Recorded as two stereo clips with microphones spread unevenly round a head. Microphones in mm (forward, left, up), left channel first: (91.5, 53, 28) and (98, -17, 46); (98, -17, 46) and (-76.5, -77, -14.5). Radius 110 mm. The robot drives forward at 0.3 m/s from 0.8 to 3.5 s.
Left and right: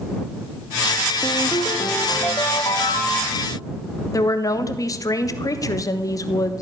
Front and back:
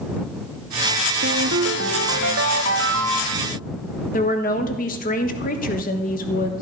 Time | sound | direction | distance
1.2 | a ringtone | 155° left | 0.8 m
4.1 | a woman speaking | 80° left | 1.4 m